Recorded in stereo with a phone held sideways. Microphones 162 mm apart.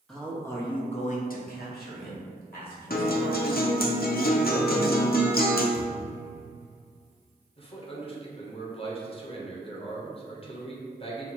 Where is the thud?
10° right (ahead or behind), 1.7 m.